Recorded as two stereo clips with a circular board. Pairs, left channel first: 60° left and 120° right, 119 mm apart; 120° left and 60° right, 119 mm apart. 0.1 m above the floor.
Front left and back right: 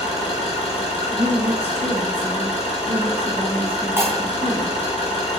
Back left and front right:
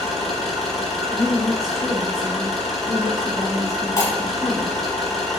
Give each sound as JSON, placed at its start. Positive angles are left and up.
{"t": 0.0, "sound": "an engine running", "azimuth_deg": 35, "distance_m": 0.8}
{"t": 1.1, "sound": "a woman speaking", "azimuth_deg": -155, "distance_m": 1.1}
{"t": 4.0, "sound": "breaking glass", "azimuth_deg": 175, "distance_m": 1.3}